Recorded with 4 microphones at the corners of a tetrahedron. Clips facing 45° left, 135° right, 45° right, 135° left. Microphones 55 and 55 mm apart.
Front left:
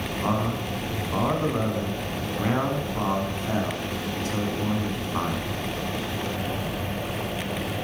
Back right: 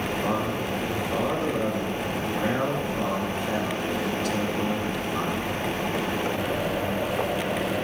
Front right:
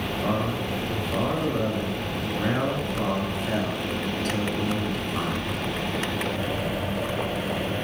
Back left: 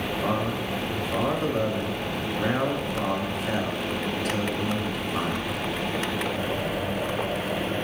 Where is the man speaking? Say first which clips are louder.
Front left 3 dB, front right 1 dB; 60° left, 1.5 m.